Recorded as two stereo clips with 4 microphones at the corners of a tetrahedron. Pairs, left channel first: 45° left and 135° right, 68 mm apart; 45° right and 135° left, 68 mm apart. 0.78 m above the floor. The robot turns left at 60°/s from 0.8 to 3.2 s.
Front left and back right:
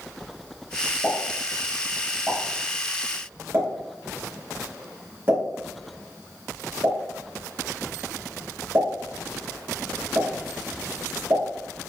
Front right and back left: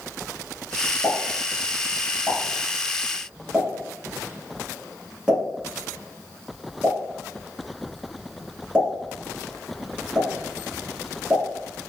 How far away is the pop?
About 1.1 m.